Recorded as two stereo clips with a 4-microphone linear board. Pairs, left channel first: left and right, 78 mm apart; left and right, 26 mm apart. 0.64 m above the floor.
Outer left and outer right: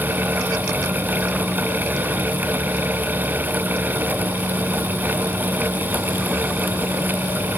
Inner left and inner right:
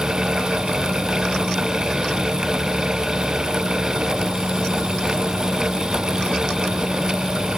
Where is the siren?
No siren in this recording.